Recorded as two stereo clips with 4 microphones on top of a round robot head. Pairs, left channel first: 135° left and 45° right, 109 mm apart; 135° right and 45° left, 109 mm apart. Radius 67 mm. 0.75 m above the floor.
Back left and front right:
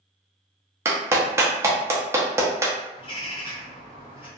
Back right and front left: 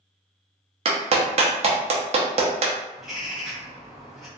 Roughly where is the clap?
Ahead.